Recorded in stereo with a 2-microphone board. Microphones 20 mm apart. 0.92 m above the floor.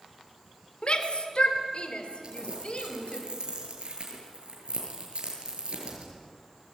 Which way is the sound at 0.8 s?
55° left (ahead or behind).